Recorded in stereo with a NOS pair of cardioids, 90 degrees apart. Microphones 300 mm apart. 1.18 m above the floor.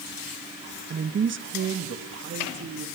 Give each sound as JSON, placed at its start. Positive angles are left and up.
{"t": 0.9, "sound": "a woman speaking", "azimuth_deg": -35, "distance_m": 1.3}